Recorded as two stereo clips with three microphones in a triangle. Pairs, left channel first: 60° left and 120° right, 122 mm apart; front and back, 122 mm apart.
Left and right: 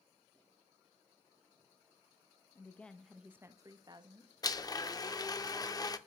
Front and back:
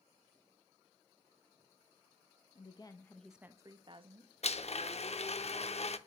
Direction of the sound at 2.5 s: 5° right.